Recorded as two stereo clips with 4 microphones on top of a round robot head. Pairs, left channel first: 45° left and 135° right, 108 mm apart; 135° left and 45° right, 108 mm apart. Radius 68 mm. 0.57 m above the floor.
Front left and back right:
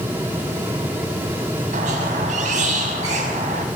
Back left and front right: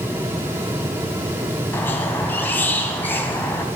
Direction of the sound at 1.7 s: 150° right.